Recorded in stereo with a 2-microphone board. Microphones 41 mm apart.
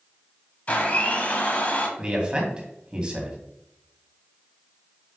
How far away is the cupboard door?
No cupboard door in this recording.